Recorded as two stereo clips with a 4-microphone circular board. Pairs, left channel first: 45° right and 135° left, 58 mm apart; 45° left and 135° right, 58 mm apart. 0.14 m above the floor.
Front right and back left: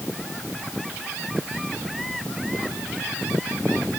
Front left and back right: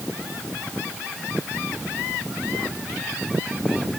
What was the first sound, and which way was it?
Only background noise.